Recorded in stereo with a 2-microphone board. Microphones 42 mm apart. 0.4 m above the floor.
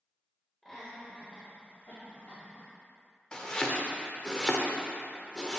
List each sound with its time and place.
0.6 s laughter: 10° left (ahead or behind), 1.6 m; by 2.7 s 55° left (ahead or behind), 2.5 m
3.3 s chopping: 20° left (ahead or behind), 0.8 m